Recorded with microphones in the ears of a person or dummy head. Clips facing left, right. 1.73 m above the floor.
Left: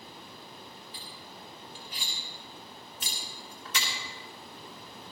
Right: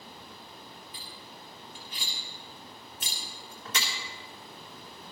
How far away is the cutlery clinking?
About 2.5 m.